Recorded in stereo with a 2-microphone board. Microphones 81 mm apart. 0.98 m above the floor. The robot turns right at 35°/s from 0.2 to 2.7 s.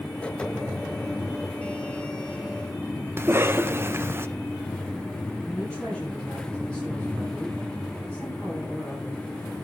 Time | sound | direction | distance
3.2 | a cough | 30° right (ahead or behind) | 0.6 m
5.4 | a woman speaking | 10° left (ahead or behind) | 6.5 m